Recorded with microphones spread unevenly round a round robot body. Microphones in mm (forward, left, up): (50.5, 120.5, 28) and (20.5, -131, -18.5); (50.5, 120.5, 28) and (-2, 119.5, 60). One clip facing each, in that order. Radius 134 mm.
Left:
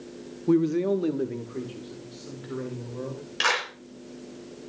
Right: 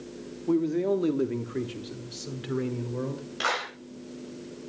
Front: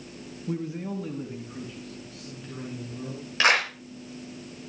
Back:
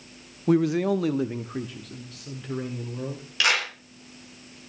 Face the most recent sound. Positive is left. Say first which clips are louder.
# left 1 dB, front 3 dB
turn(degrees=35)